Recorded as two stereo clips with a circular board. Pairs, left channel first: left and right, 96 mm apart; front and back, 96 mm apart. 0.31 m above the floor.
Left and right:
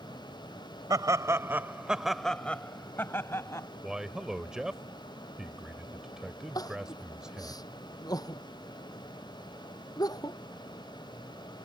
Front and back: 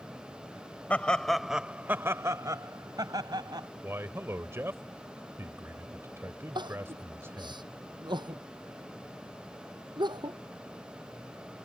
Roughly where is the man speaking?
Behind.